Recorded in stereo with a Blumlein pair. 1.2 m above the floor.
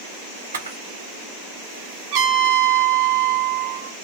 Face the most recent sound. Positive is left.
turn(degrees=-45)